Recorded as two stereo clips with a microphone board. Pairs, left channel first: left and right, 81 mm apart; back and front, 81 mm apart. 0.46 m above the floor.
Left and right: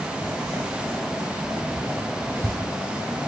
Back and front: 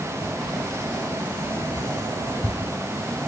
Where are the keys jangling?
75° right, 1.1 m; by 2.7 s 140° right, 1.6 m.